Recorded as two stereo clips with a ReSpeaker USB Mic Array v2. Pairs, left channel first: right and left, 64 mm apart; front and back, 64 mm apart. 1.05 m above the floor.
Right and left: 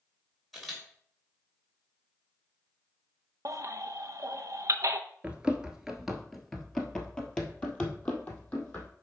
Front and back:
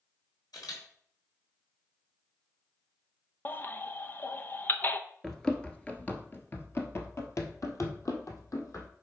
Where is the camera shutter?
Straight ahead, 3 m.